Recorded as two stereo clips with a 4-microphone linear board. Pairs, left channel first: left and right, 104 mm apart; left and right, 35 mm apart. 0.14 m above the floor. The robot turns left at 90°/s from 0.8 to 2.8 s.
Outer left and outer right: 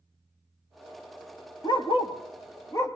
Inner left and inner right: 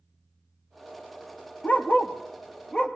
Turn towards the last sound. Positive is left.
turn(degrees=30)  # may be behind; listen again after turning